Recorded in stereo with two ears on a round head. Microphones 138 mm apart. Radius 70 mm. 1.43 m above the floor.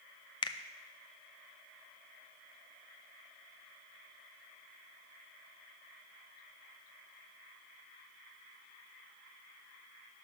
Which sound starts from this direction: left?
A finger snap, at 0.4 s.